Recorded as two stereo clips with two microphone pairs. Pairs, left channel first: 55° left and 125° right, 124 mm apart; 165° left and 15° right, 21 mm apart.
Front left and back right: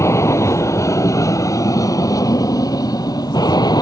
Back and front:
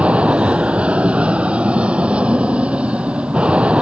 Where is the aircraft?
10° right; by 3.8 s straight ahead.